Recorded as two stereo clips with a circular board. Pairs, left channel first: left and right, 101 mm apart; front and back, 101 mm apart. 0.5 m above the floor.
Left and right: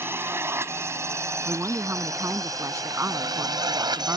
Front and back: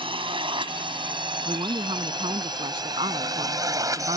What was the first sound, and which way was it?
A drone, 155° right.